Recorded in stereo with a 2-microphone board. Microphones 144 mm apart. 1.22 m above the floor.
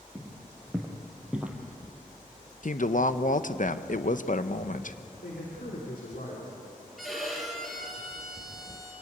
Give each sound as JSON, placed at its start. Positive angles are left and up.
{"t": 0.1, "sound": "footsteps", "side_deg": 5, "distance_m": 3.5}
{"t": 2.6, "sound": "a woman speaking", "side_deg": 65, "distance_m": 0.8}
{"t": 5.2, "sound": "a man speaking", "side_deg": 90, "distance_m": 3.0}
{"t": 7.0, "sound": "a violin", "side_deg": 0, "distance_m": 6.0}